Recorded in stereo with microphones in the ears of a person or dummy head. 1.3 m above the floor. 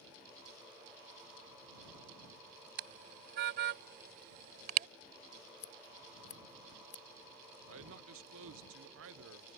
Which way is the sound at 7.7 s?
65° right (ahead or behind).